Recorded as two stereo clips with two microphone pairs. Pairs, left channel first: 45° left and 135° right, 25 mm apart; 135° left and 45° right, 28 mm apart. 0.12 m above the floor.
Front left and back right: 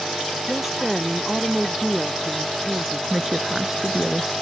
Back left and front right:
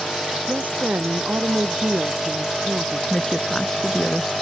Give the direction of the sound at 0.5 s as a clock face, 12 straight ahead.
2 o'clock.